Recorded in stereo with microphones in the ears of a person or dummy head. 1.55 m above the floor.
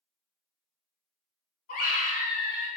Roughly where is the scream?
Left.